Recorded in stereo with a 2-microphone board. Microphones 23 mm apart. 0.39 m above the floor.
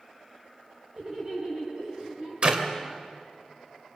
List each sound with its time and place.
1.0 s laughter: 40° right (ahead or behind), 4.5 m
2.4 s a clap: 45° right (ahead or behind), 1.6 m